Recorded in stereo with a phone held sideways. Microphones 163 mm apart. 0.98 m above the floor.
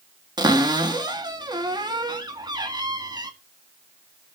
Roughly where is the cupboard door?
Right.